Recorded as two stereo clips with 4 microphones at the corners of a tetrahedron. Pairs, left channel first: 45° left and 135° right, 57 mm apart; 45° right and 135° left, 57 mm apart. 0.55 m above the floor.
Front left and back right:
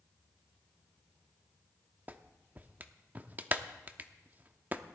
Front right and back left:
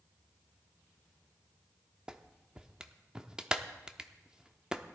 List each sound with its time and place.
2.1 s a clap: 165° right, 0.7 m